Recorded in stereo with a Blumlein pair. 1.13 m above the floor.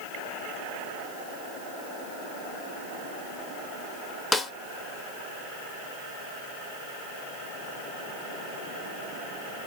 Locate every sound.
4.3 s a snare drum: 10° left, 0.6 m